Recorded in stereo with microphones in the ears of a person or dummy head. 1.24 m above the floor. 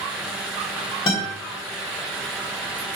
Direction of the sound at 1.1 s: 25° left (ahead or behind).